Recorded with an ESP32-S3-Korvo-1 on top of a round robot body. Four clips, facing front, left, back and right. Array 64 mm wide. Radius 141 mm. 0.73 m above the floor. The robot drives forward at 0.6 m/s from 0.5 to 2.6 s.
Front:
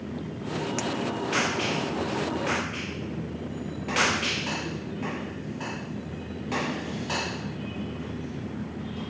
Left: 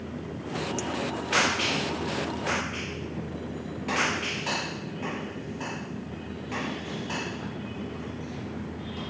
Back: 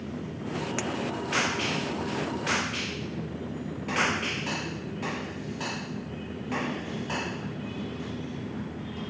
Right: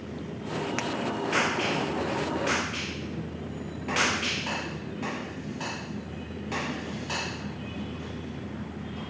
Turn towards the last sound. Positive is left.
turn(degrees=-160)